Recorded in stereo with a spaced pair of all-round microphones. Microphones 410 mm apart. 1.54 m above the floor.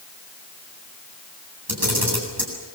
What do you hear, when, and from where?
1.7 s a camera shutter: 60° right (ahead or behind), 8 m